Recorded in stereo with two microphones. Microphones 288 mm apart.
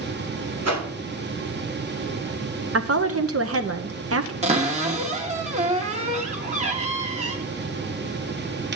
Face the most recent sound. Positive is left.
turn(degrees=-25)  # may be behind; listen again after turning